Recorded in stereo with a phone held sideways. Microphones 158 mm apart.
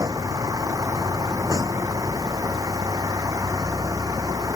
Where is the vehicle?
20° right (ahead or behind).